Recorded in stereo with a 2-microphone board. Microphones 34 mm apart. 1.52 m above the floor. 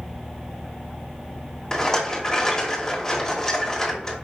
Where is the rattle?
15° left (ahead or behind), 1.4 m.